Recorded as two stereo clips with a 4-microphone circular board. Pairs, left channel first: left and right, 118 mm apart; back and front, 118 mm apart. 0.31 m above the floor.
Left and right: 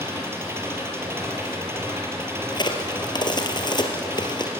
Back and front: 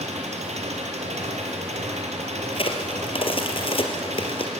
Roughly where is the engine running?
Ahead.